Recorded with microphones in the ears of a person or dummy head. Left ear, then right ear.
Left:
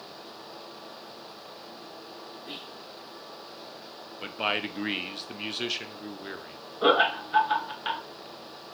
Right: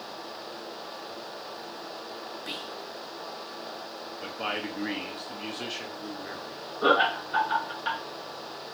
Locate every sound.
2.5 s whispering: 55° right (ahead or behind), 0.6 m
4.2 s a man speaking: 40° left (ahead or behind), 0.6 m
6.8 s laughter: 30° left (ahead or behind), 1.2 m